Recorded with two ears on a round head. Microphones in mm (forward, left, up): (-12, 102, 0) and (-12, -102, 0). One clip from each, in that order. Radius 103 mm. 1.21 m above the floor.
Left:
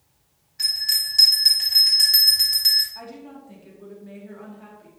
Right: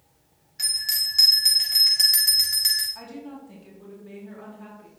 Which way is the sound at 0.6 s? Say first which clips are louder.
Left 3 dB; 5° right (ahead or behind).